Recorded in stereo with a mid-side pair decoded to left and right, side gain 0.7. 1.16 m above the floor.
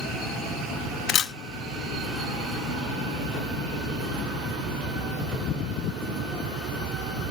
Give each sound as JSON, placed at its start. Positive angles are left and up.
{"t": 1.1, "sound": "a camera shutter", "azimuth_deg": 50, "distance_m": 0.5}